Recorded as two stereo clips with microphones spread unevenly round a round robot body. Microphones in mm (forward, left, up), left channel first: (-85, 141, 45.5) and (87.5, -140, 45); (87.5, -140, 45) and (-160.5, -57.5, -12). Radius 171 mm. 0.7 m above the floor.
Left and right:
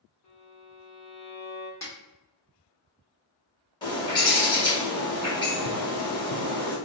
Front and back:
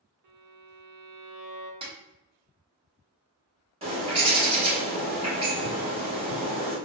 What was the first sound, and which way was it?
A violin, 170° left.